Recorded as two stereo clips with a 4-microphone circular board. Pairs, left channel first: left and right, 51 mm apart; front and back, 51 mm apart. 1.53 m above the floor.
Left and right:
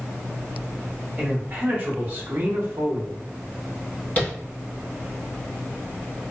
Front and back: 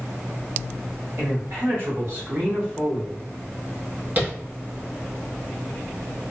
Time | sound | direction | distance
1.2 | a man speaking | 160° right | 1.6 m
4.2 | tapping | 140° left | 1.3 m